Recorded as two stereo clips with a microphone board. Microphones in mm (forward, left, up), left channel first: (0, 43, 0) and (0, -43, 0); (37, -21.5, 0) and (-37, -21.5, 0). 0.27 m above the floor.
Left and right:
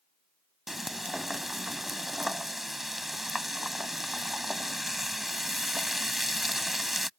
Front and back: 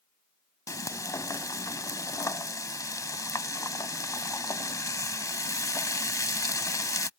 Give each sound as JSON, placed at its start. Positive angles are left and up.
{"t": 0.7, "sound": "frying", "azimuth_deg": -5}